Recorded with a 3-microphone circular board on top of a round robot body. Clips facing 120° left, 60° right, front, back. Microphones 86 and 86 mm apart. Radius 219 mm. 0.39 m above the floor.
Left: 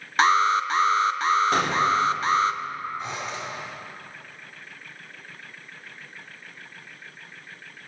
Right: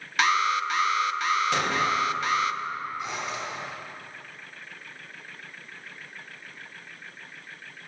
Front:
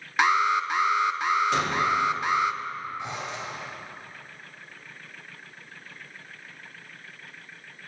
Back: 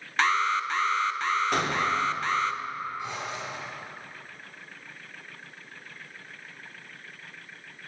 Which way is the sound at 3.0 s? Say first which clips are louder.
Even, front 1 dB; 65° left.